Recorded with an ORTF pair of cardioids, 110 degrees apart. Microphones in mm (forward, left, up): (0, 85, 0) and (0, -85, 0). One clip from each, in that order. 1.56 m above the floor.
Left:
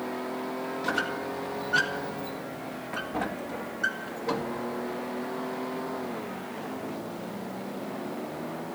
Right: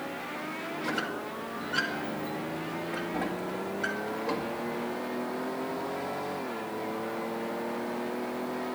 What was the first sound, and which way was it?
A squeak, 20° left.